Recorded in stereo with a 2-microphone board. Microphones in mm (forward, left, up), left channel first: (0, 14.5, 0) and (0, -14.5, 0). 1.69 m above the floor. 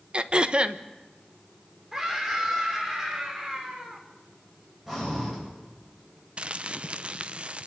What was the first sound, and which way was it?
Throat clearing, 35° right (ahead or behind).